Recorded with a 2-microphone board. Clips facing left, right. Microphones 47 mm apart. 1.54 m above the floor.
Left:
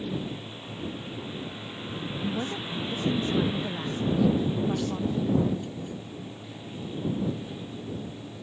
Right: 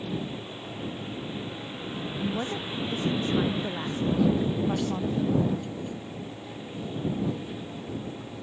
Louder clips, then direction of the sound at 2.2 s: Right 1 dB; 10° right (ahead or behind).